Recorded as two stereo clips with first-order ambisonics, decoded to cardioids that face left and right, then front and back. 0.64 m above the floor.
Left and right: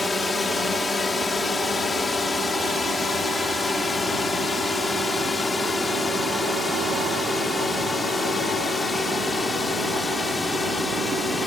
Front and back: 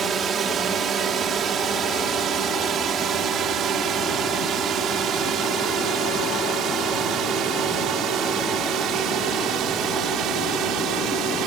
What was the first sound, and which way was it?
A drone, 150° left.